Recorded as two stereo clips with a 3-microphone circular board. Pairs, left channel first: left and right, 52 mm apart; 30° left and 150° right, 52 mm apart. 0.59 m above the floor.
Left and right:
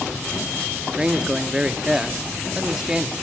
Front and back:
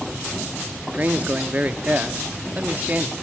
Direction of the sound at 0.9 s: 150° right.